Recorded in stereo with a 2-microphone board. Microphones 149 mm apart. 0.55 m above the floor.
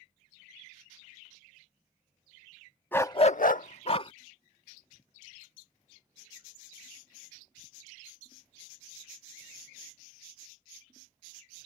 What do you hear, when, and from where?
2.9 s a dog barking: 15° left (ahead or behind); by 4.1 s 35° left (ahead or behind)